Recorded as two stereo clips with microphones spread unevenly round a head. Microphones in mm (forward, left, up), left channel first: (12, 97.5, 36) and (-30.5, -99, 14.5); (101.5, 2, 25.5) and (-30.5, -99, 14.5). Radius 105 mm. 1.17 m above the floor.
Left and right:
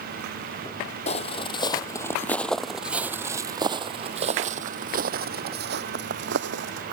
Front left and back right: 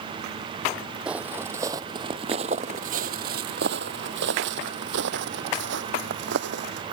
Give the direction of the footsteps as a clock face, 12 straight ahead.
8 o'clock.